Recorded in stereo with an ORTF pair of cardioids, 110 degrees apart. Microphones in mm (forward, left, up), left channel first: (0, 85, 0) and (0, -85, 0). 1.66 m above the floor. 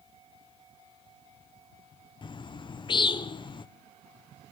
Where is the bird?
30° left, 0.9 m.